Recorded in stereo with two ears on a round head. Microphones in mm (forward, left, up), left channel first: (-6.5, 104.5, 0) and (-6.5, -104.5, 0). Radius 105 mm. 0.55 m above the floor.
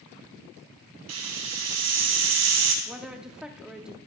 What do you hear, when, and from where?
1.1 s a hiss: 70° right (ahead or behind), 2.5 m
2.9 s a woman speaking: 5° right (ahead or behind), 0.7 m